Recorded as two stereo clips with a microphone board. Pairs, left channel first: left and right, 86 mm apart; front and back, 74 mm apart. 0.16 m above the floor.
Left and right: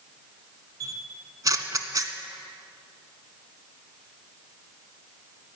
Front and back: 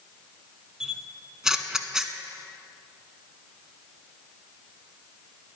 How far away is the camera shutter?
About 0.6 m.